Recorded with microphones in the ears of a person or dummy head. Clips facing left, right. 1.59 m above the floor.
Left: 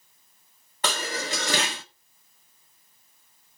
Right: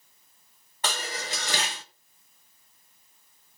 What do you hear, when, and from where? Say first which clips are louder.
0.8 s dishes clattering: left 4 dB; 50° left (ahead or behind), 1.3 m